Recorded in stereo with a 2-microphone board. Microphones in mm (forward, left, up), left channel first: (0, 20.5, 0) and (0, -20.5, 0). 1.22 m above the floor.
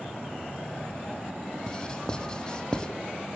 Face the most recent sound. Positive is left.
turn(degrees=20)  # may be behind; listen again after turning